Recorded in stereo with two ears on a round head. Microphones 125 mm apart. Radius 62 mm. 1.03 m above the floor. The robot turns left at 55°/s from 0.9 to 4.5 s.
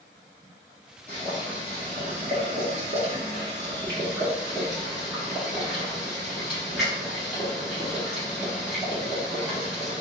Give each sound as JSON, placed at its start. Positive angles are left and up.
{"t": 1.1, "sound": "boiling", "side_deg": 10, "distance_m": 1.9}